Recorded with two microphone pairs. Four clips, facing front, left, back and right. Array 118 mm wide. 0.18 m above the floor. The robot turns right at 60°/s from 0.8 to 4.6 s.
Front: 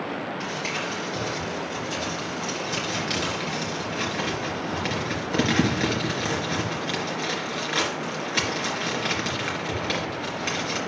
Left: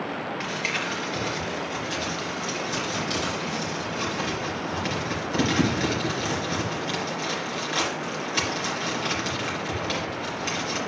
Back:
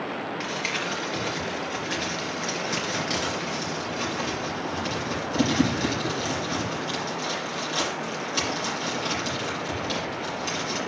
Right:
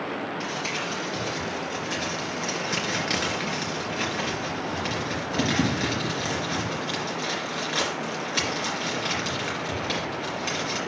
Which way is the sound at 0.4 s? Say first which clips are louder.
Left 1 dB, even; 125° left.